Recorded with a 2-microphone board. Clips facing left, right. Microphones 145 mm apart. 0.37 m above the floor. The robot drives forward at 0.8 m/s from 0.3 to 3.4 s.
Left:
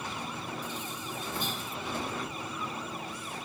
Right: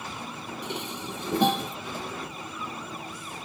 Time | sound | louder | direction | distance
0.6 | dishes clattering | right 4 dB | 70° right (ahead or behind) | ?